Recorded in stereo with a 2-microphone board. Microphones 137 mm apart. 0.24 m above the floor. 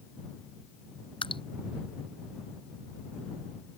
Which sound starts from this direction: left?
Dripping, at 1.2 s.